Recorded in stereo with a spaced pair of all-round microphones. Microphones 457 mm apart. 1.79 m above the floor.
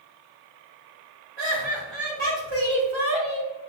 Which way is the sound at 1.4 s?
70° right (ahead or behind).